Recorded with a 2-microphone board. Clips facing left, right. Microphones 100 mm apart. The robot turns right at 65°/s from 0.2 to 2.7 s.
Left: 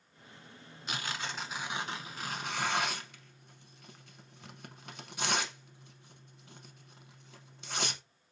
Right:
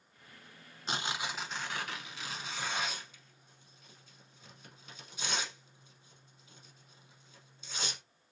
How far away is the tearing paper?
About 0.8 m.